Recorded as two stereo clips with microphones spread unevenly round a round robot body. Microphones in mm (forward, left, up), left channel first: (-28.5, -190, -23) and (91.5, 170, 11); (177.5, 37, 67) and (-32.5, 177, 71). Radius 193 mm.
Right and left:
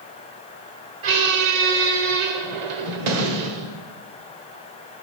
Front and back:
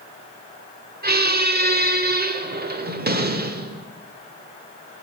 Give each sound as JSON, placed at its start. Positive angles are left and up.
{"t": 1.0, "sound": "a squeak", "azimuth_deg": 90, "distance_m": 1.5}